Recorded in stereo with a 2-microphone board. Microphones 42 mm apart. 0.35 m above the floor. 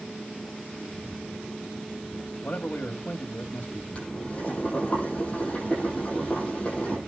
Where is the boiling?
25° left (ahead or behind), 9 m.